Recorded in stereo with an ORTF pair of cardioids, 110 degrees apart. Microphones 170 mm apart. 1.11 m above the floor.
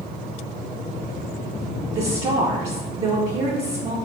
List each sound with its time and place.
1.9 s a woman speaking: 40° right, 0.6 m